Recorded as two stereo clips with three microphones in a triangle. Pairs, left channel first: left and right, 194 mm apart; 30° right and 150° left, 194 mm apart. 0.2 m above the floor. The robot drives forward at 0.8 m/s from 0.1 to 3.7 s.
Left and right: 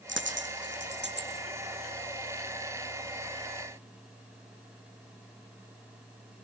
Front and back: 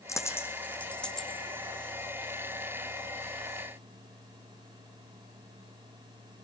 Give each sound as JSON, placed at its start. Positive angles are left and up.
{"t": 0.1, "sound": "a dropped coin", "azimuth_deg": -105, "distance_m": 4.0}